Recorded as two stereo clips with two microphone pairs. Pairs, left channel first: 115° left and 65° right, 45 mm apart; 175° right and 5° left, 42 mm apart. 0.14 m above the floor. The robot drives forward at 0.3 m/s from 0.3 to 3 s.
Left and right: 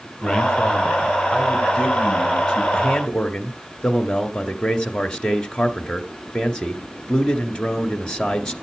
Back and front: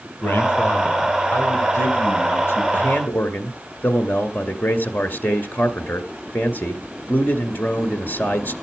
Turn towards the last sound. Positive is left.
turn(degrees=180)